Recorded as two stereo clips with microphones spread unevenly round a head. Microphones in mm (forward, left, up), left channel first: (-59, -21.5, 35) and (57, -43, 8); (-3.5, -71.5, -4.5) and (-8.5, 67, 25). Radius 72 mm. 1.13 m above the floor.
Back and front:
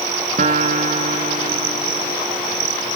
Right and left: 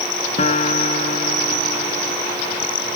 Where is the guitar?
40° right.